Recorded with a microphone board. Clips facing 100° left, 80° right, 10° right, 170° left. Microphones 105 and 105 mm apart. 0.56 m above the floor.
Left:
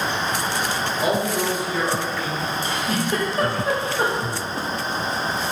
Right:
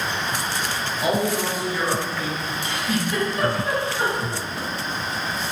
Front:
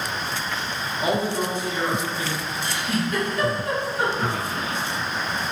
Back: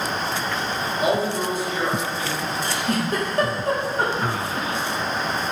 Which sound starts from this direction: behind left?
A giggle, at 2.6 s.